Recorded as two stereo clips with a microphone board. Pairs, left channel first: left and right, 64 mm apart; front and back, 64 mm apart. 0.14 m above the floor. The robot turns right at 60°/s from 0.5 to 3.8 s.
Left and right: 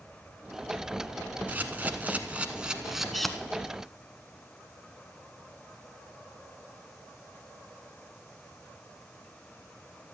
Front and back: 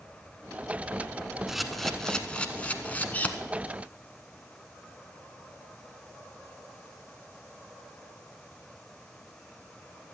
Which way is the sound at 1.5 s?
100° right.